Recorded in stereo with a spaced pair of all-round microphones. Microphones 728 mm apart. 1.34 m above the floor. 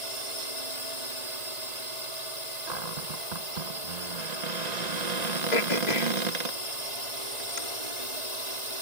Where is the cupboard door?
65° right (ahead or behind).